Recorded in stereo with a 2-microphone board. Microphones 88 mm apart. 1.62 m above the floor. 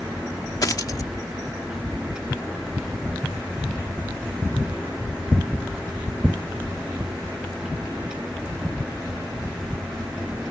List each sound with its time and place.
0.6 s a dropped coin: 45° left (ahead or behind)